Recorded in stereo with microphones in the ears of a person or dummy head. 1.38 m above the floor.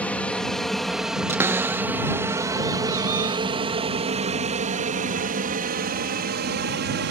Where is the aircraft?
5° left (ahead or behind); by 7.1 s 55° right (ahead or behind).